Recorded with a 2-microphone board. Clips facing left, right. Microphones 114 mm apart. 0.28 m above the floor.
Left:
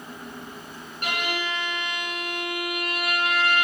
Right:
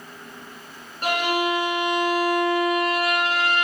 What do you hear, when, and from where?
1.0 s a violin: 35° right (ahead or behind), 0.8 m